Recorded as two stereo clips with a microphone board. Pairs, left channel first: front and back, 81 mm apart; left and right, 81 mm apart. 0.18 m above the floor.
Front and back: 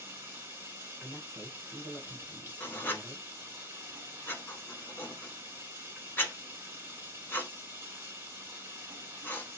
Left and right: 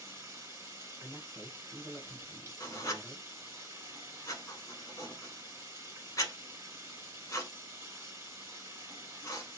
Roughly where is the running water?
Behind right.